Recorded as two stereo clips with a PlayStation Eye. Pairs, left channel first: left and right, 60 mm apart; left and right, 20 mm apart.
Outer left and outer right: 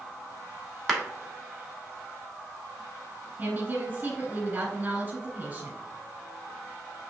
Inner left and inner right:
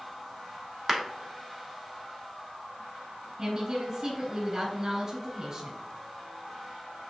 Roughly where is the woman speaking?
Right.